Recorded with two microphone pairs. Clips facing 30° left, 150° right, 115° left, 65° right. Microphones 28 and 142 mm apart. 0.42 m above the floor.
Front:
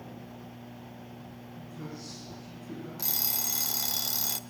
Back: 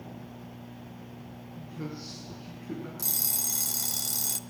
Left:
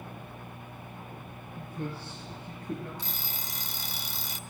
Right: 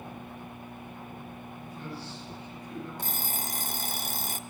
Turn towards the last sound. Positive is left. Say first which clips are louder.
# front 4 dB, right 5 dB
turn(degrees=-40)